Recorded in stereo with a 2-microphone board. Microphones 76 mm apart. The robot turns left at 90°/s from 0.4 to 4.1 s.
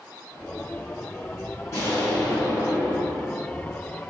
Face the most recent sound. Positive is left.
turn(degrees=-160)